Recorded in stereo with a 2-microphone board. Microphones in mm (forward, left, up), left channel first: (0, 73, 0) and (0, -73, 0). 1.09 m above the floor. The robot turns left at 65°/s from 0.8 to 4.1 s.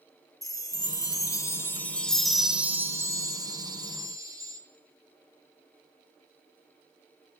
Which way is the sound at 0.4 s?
25° left (ahead or behind).